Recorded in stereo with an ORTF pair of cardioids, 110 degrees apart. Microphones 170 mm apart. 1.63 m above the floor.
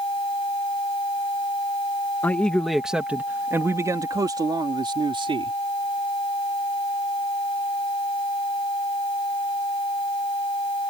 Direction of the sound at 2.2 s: 10° left.